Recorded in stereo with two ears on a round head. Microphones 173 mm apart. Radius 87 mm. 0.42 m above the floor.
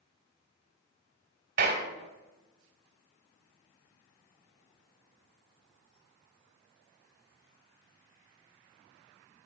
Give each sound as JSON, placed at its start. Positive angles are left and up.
{"t": 1.6, "sound": "a clap", "side_deg": -50, "distance_m": 1.9}